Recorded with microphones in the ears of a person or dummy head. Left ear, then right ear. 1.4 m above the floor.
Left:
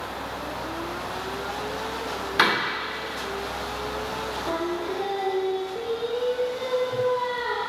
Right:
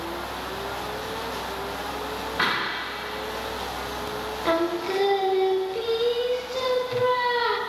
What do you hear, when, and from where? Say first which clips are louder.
2.4 s a door slam: left 4 dB; 80° left, 2.5 m
4.5 s singing: right 7 dB; 70° right (ahead or behind), 0.6 m